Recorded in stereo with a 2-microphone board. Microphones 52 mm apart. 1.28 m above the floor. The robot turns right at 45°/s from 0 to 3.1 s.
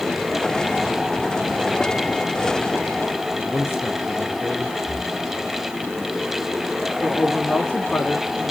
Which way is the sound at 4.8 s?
40° right (ahead or behind).